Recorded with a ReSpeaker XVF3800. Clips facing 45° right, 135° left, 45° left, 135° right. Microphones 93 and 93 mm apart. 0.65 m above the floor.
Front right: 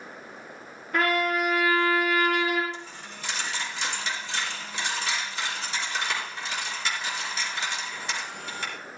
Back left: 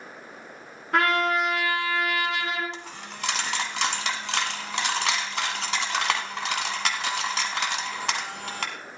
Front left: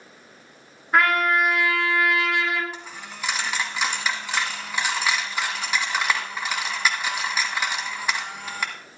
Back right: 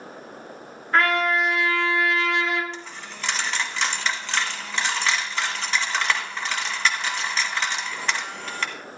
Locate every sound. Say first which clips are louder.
0.9 s a trumpet: back left 2 dB, front left 1 dB; 125° left, 2 m
2.7 s a dropped coin: back left 1 dB, back right 1 dB; 125° left, 1.4 m